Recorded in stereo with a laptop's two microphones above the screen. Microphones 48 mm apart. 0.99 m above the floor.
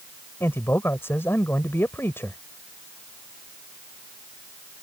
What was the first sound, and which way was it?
A man speaking, 55° left (ahead or behind).